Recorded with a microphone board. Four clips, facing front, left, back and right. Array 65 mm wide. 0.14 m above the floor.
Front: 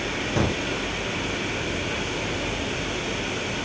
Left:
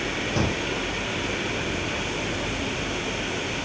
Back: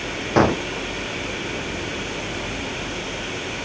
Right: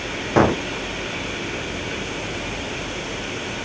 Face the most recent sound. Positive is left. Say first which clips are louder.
# right 12 dB, back 9 dB
turn(degrees=-130)